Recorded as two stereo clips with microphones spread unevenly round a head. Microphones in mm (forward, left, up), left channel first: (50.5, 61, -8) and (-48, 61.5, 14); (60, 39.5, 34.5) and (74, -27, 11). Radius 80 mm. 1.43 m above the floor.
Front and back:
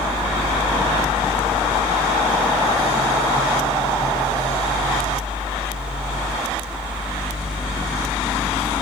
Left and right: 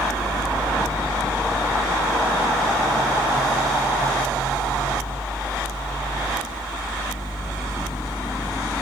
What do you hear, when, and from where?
0.0 s a fan: 105° left, 1.6 m